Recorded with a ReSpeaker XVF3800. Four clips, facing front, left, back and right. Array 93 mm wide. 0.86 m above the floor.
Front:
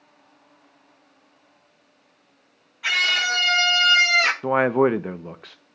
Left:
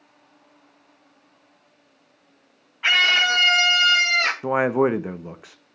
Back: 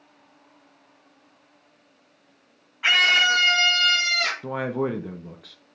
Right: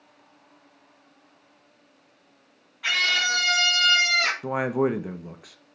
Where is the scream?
130° left, 1.2 m; by 4.3 s 25° left, 1.0 m.